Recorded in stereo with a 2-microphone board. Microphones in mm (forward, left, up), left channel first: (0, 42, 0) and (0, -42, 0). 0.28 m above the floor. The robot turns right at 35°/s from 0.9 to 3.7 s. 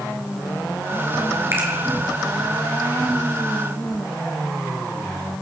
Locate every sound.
1.5 s a finger snap: 35° right (ahead or behind), 3 m; by 1.7 s 30° right (ahead or behind), 3 m